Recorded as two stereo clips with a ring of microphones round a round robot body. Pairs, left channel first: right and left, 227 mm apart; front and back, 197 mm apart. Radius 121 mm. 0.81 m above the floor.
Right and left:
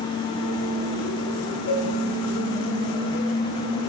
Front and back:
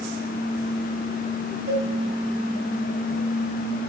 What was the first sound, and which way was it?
A cowbell, 125° right.